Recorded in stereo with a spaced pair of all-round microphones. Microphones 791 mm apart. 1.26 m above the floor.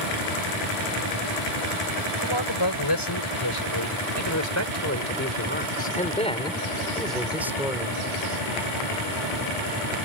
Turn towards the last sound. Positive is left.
turn(degrees=-5)  # may be behind; listen again after turning